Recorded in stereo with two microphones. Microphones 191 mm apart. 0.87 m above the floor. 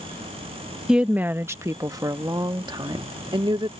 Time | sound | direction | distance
0.9 | a woman speaking | 5° right (ahead or behind) | ?